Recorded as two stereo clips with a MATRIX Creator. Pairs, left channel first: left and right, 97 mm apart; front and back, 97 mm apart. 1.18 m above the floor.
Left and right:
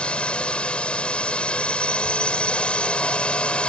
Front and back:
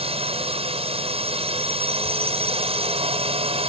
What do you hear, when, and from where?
0.0 s a drone: 170° left